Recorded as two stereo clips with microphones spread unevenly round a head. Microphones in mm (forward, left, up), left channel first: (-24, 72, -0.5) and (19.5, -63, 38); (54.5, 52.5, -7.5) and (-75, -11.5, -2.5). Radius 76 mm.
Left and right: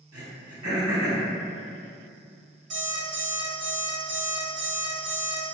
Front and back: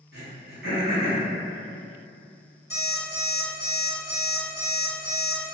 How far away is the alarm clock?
About 1.3 m.